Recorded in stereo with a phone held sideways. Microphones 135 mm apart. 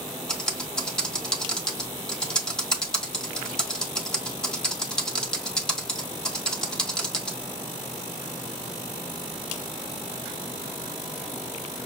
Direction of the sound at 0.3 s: 5° left (ahead or behind).